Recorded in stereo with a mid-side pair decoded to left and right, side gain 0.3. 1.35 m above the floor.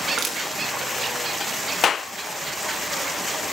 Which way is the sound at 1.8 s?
65° left.